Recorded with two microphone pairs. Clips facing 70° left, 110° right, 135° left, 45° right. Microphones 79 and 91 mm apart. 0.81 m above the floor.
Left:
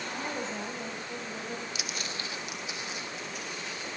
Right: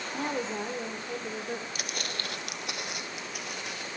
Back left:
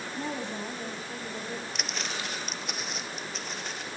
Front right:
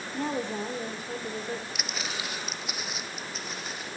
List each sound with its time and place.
0.1 s a woman speaking: 65° right, 2.5 m
1.8 s footsteps: 125° right, 1.1 m